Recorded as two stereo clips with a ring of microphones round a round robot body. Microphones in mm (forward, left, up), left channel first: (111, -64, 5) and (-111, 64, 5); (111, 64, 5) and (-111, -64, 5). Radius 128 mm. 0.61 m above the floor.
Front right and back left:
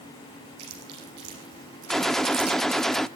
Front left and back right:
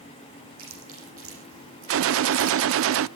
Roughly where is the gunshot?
Behind right.